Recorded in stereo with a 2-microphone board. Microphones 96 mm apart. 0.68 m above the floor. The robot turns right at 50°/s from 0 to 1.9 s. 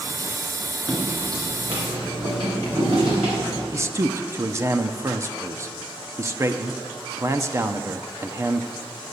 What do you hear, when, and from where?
0.9 s footsteps: 20° right (ahead or behind), 3.5 m; by 3.6 s 75° right (ahead or behind), 6 m
3.7 s a man speaking: 30° right (ahead or behind), 0.6 m